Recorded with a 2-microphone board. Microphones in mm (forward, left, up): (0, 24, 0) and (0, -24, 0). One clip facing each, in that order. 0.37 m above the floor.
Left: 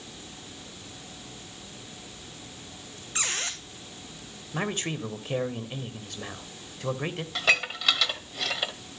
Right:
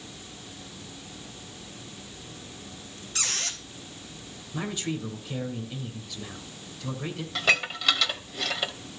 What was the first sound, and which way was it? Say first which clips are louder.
A squeak: left 2 dB; 25° left (ahead or behind).